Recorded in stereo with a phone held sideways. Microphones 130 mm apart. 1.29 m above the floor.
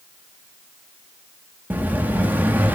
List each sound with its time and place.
1.7 s an explosion: 15° right (ahead or behind), 1.5 m